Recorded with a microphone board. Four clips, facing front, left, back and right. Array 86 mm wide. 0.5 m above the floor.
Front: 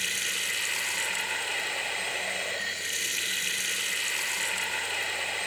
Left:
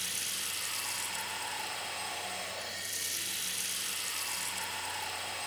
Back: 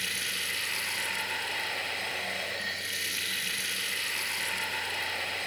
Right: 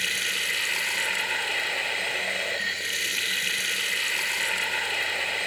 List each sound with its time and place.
0.0 s running water: 80° right, 3.5 m